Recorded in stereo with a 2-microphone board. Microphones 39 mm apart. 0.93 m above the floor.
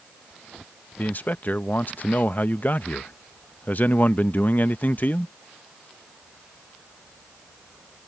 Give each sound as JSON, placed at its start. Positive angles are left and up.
{"t": 1.0, "sound": "a man speaking", "side_deg": 45}